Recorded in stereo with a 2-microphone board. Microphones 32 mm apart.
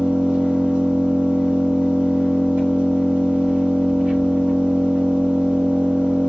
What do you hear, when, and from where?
0.0 s an engine running: 70° right (ahead or behind), 3.5 m